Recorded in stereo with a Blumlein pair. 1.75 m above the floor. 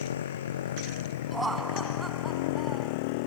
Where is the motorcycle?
65° left; by 3.3 s 45° left.